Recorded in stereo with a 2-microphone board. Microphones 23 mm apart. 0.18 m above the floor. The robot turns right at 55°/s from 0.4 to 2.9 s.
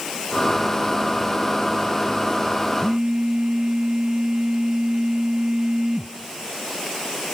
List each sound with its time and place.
2.8 s a phone buzzing: 50° right (ahead or behind), 0.7 m; by 6.2 s 45° right (ahead or behind), 0.7 m